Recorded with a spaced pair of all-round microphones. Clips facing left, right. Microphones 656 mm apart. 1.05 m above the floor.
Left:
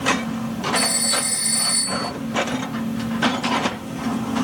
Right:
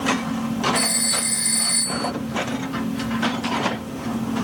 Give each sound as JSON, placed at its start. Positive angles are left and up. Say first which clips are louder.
{"t": 0.8, "sound": "a phone ringing", "louder": "left 1 dB", "side_deg": 55}